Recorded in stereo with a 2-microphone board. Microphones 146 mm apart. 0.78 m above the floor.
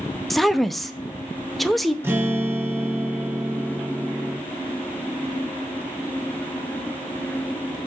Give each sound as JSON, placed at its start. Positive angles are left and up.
{"t": 0.3, "sound": "a woman speaking", "side_deg": 0, "distance_m": 0.6}
{"t": 2.0, "sound": "a guitar", "side_deg": -15, "distance_m": 1.1}